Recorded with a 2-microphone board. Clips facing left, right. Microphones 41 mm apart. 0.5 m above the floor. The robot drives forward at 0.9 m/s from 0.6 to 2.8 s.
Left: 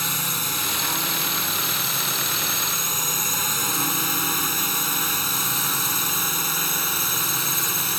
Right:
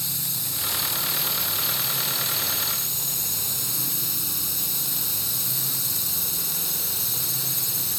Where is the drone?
55° left (ahead or behind); by 8.0 s 50° left (ahead or behind).